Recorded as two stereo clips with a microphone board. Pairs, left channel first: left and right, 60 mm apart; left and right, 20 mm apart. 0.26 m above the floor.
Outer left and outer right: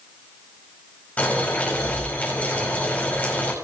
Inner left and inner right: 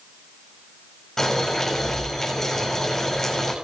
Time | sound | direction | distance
1.2 | boiling | 25° left (ahead or behind) | 4.5 m